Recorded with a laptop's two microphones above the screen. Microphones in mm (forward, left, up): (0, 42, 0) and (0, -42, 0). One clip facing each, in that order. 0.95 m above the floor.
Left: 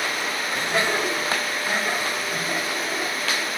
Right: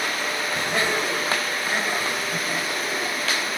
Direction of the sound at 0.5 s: 50° left (ahead or behind).